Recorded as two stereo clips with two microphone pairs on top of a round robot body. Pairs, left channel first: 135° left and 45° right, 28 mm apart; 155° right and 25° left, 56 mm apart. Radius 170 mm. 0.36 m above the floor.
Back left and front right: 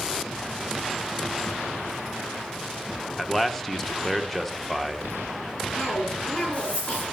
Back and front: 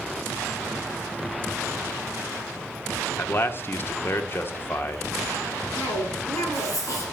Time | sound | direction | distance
3.2 | a man speaking | 135° right | 1.2 m
5.8 | a cough | 175° right | 7.5 m